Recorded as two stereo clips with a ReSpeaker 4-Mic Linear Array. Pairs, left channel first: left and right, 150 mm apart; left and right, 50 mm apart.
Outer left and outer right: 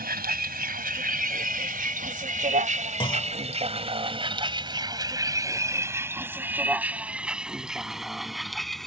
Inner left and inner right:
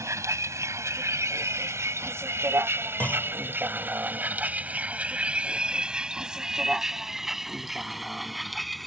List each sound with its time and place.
0.0 s a vehicle: 90° right; by 8.9 s centre (ahead or behind)
3.0 s a clunk: 35° left (ahead or behind)